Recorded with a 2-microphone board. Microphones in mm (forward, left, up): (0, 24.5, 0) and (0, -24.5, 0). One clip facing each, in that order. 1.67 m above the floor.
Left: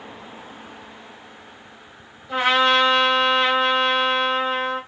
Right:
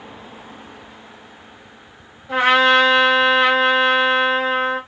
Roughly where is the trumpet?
Right.